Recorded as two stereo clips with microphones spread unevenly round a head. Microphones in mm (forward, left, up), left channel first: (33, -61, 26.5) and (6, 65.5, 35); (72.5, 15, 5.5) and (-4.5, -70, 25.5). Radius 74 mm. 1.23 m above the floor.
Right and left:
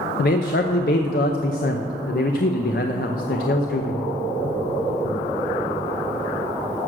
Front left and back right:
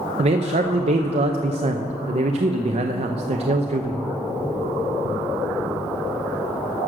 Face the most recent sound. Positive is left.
turn(degrees=-105)